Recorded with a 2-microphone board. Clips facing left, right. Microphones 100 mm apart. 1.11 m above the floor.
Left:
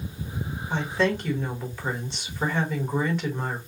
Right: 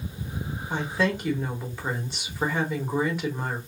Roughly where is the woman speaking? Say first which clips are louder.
Left 1 dB; centre.